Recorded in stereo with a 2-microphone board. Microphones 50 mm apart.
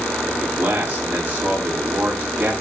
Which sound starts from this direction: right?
A man speaking, at 0.3 s.